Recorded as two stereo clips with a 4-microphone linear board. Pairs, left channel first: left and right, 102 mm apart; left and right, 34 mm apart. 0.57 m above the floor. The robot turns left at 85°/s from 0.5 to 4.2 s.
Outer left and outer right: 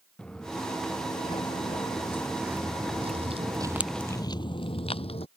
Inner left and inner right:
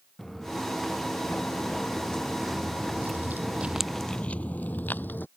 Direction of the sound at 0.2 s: 10° left (ahead or behind).